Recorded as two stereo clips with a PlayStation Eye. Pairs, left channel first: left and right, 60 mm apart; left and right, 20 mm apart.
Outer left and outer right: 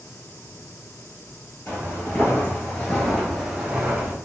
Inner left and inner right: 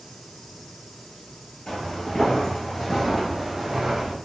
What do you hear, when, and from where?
1.7 s footsteps: 40° left (ahead or behind), 1.4 m; by 4.2 s 20° right (ahead or behind), 1.2 m